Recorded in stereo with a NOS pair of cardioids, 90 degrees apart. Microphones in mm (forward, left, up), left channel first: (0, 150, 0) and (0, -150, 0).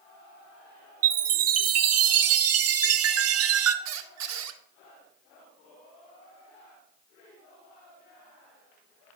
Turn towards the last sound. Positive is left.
turn(degrees=-65)